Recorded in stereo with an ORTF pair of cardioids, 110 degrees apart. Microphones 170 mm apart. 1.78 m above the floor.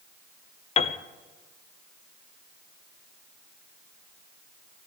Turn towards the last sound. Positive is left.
turn(degrees=40)